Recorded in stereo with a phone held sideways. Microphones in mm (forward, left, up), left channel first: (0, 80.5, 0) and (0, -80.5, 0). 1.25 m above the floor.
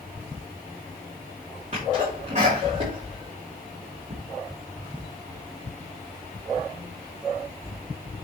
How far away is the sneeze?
About 3 m.